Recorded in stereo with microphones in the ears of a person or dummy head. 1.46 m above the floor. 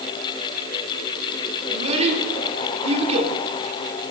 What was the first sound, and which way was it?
A child speaking, 40° right (ahead or behind).